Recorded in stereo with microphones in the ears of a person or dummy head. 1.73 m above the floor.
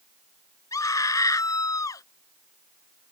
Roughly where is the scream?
Left.